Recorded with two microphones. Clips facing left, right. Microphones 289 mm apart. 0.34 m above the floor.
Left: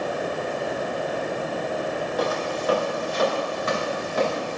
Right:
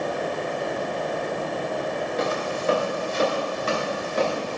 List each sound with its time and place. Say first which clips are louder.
2.2 s footsteps: left 1 dB; 25° right (ahead or behind), 4.5 m; by 4.6 s 40° right (ahead or behind), 5.5 m